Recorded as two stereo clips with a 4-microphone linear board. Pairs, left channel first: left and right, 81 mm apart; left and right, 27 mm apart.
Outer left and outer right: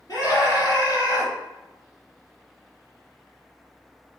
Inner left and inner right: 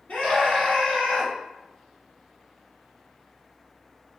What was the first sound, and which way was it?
A scream, 55° left (ahead or behind).